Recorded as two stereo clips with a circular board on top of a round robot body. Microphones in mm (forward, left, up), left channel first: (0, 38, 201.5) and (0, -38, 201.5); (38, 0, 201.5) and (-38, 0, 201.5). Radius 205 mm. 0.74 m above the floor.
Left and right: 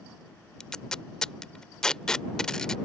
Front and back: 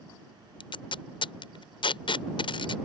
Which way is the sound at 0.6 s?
10° left.